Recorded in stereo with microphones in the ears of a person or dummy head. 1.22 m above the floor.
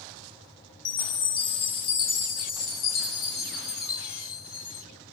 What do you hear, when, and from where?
0.8 s a chime: 20° left (ahead or behind), 0.5 m